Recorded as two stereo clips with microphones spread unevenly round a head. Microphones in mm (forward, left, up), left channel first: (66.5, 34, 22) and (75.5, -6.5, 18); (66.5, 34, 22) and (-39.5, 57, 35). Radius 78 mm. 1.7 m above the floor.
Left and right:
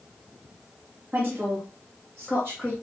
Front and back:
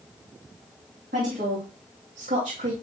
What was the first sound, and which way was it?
A woman speaking, 155° right.